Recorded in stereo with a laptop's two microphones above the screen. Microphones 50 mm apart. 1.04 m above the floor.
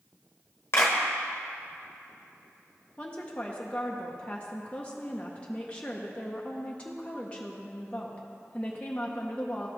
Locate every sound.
0.7 s a clap: 55° left (ahead or behind), 1.0 m
3.0 s a woman speaking: 25° left (ahead or behind), 0.5 m